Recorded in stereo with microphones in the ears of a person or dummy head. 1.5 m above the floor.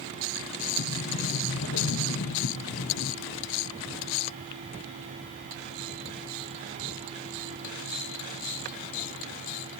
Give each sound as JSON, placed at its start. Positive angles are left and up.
{"t": 0.8, "sound": "a sliding door", "side_deg": 70, "distance_m": 0.8}